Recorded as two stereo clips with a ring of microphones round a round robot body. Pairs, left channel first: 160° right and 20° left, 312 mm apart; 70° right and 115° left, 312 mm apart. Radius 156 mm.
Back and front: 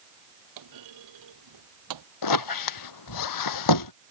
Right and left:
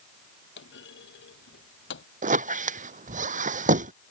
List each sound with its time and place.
0.6 s a clunk: 10° right
2.2 s a squeak: straight behind